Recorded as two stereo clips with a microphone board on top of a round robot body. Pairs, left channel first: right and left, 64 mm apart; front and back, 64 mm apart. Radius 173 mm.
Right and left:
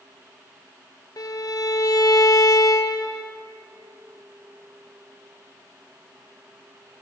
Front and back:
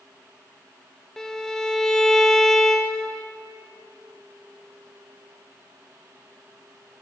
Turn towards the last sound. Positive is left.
turn(degrees=-85)